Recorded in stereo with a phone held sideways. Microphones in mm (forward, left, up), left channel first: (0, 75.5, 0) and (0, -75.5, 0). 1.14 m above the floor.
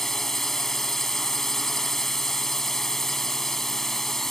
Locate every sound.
0.0 s a drone: centre (ahead or behind)